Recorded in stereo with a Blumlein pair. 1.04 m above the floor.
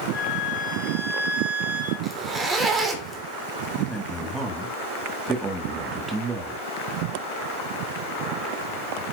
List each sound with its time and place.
0.1 s a flute: 50° left, 5.5 m
2.0 s a zipper: 15° right, 2.5 m
3.8 s a man speaking: 10° right, 2.5 m